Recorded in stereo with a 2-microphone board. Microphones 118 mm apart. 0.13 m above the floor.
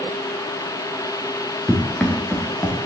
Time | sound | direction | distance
1.7 | running footsteps | centre (ahead or behind) | 4 m